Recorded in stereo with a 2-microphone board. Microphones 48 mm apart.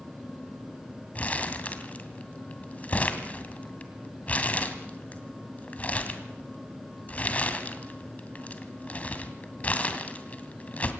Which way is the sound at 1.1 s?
35° left (ahead or behind).